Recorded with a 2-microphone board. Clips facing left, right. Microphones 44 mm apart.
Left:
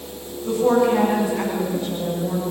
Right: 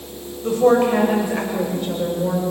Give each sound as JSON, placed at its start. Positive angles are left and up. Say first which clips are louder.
{"t": 0.4, "sound": "a woman speaking", "louder": "right 2 dB", "side_deg": -65, "distance_m": 7.5}